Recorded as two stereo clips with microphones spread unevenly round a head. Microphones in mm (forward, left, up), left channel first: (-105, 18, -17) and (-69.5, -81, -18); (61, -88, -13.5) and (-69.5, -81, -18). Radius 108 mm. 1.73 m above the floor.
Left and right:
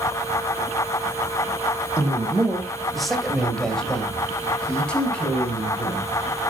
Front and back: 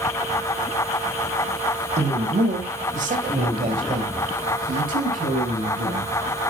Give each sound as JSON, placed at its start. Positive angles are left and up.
{"t": 2.0, "sound": "a man speaking", "azimuth_deg": -150, "distance_m": 2.5}